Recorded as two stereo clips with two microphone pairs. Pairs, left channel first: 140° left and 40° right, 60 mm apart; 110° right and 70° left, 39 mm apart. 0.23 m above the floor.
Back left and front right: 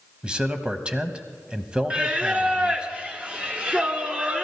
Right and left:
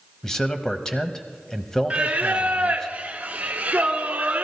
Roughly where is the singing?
Ahead left.